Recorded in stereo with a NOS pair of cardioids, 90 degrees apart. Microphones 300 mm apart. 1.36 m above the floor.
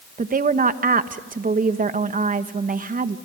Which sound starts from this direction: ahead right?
A woman speaking, at 0.2 s.